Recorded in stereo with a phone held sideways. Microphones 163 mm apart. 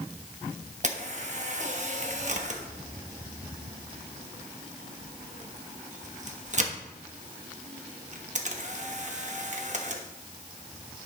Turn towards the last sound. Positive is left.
turn(degrees=-50)  # may be behind; listen again after turning